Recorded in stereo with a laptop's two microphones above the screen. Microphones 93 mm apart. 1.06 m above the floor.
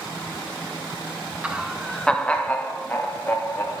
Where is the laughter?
10° right (ahead or behind), 1.0 m; by 3.8 s 30° left (ahead or behind), 2.5 m.